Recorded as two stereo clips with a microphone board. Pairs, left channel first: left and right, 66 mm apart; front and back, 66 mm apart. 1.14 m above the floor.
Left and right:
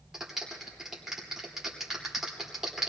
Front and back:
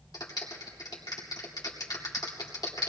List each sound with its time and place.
0.1 s a clap: 5° right, 2.5 m